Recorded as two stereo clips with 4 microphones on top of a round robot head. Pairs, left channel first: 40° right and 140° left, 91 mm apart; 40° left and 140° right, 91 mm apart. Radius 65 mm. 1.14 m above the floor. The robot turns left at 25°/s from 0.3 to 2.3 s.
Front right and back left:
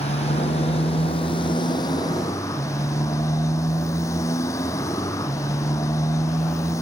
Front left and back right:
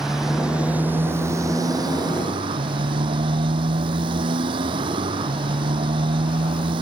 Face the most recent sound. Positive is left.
turn(degrees=-105)